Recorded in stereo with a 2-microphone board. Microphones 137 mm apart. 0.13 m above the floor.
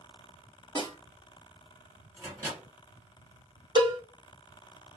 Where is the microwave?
25° right (ahead or behind), 1.7 m.